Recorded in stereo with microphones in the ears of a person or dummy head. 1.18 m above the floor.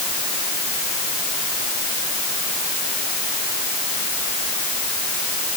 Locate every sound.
Only background noise.